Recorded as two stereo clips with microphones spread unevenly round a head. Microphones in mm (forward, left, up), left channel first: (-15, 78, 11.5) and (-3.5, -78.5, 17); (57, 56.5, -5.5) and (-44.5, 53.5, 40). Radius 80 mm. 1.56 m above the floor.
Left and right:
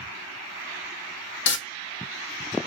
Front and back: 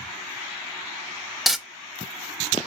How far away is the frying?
About 0.6 m.